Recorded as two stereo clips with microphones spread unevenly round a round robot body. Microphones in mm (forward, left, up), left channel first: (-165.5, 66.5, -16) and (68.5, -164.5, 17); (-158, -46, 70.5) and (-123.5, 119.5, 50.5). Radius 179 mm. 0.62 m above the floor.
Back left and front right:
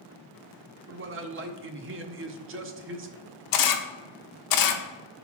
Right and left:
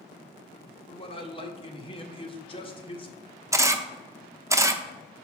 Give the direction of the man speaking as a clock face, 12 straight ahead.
2 o'clock.